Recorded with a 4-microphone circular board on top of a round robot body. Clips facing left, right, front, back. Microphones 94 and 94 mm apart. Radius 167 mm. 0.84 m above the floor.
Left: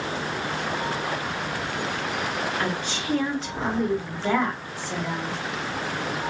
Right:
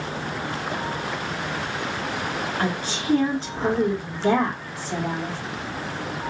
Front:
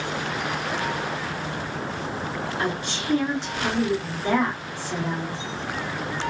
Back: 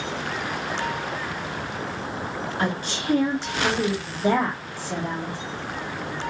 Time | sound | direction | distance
2.6 | a woman speaking | 140° right | 2.0 m